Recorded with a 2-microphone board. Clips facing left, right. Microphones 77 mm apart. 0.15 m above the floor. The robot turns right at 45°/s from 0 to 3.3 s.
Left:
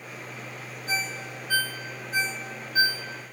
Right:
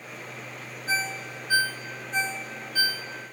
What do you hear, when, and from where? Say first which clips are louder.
0.9 s a ringtone: right 2 dB; 35° right (ahead or behind), 1.5 m; by 3.1 s 35° left (ahead or behind), 1.5 m